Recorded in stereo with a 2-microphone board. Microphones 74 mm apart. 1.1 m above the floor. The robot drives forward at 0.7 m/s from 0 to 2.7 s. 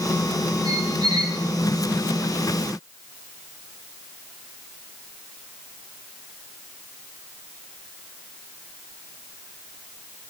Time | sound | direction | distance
0.7 | a squeak | 80° right | 2.5 m